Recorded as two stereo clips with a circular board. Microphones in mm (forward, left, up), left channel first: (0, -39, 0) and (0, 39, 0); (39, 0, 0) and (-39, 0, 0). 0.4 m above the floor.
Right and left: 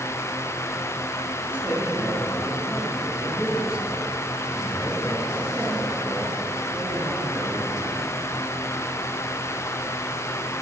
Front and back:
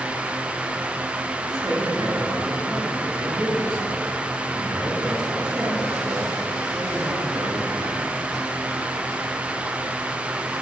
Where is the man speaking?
165° left, 5.5 m.